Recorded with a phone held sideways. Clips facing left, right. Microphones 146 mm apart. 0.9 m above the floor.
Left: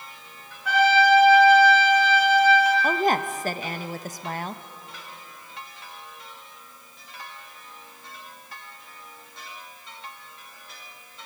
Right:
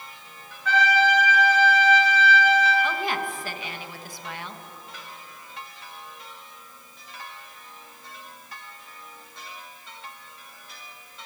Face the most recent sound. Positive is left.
turn(degrees=45)  # may be behind; listen again after turning